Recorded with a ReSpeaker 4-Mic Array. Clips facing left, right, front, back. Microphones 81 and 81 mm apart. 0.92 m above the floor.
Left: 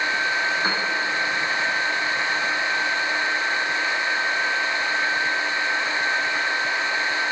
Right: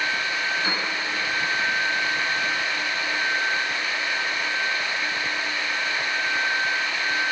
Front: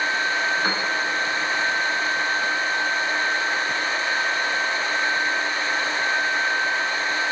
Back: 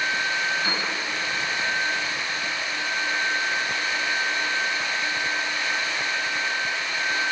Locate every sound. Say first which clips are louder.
0.6 s a piano: left 3 dB, front 3 dB; 45° left, 1.9 m